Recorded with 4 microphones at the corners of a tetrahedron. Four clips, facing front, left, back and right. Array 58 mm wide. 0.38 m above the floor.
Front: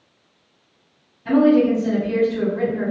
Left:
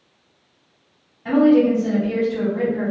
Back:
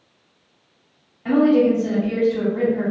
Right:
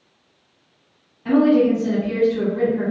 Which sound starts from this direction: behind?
A woman speaking, at 1.2 s.